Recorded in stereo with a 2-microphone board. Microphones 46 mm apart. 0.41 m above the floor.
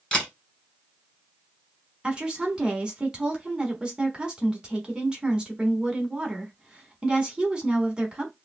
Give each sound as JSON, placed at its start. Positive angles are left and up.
{"t": 0.1, "sound": "a camera shutter", "side_deg": 15, "distance_m": 1.7}
{"t": 2.0, "sound": "a woman speaking", "side_deg": -25, "distance_m": 1.0}